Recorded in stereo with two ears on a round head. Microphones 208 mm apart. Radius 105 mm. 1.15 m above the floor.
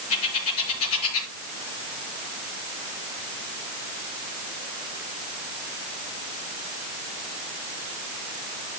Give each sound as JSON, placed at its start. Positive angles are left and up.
{"t": 0.1, "sound": "a bird", "side_deg": 75, "distance_m": 5.0}